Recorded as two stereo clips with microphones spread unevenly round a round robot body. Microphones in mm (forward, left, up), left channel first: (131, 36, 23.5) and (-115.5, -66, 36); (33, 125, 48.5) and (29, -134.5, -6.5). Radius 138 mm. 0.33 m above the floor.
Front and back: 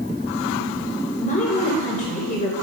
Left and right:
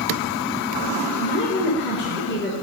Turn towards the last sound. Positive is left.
turn(degrees=55)